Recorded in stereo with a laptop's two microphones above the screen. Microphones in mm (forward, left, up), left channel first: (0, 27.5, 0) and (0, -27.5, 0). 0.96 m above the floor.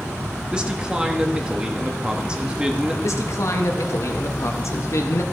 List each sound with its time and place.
0.5 s a man speaking: 15° right (ahead or behind), 1.5 m
3.0 s a man speaking: 60° left (ahead or behind), 1.2 m